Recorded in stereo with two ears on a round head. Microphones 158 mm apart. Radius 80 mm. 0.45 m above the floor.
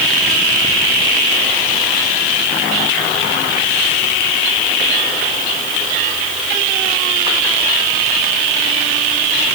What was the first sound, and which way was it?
Only background noise.